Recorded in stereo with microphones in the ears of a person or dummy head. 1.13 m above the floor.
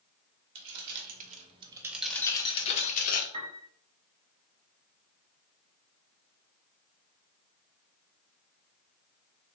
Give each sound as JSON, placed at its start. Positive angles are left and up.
{"t": 0.6, "sound": "keys jangling", "side_deg": -60, "distance_m": 0.9}
{"t": 3.3, "sound": "a piano", "side_deg": -30, "distance_m": 0.8}